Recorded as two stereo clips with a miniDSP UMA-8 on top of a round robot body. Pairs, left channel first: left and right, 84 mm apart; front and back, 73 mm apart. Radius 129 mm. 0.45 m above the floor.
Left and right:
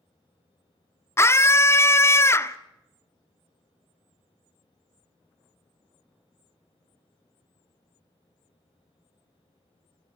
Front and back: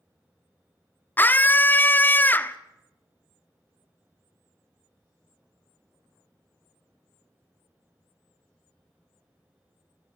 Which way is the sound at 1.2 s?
50° left.